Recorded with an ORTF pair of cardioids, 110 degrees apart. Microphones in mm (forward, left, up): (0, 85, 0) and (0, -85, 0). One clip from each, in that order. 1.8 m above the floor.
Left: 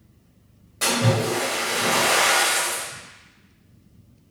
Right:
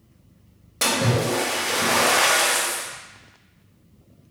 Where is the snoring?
I don't hear snoring.